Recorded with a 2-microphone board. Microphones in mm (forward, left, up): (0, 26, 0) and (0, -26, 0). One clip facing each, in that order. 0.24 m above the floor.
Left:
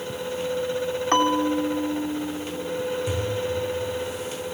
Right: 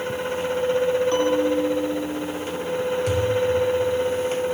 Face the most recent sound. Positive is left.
turn(degrees=-70)  # may be behind; listen again after turning